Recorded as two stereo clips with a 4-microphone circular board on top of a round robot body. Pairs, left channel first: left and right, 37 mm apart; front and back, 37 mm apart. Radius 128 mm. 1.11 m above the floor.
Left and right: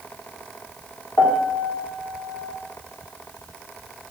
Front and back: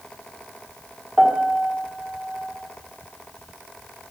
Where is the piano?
90° left, 1.3 m.